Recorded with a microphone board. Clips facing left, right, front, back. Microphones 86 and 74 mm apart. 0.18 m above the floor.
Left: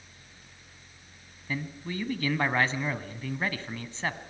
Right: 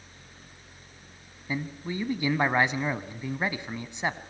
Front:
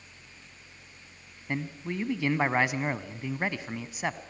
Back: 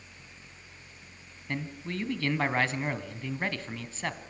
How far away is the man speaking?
About 1.0 m.